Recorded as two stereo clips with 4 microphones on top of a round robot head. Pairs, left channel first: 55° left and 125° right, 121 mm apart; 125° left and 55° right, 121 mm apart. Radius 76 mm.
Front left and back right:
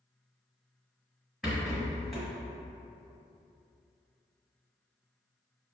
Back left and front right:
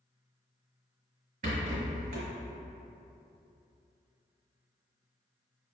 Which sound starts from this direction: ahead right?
A rattle, at 1.4 s.